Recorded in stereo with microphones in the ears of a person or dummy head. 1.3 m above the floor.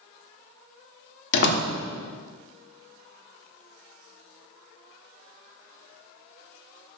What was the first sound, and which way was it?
A door slam, 75° left (ahead or behind).